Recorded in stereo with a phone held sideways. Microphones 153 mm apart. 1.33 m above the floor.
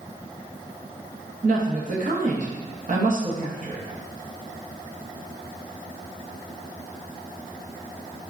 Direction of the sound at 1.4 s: 55° right (ahead or behind).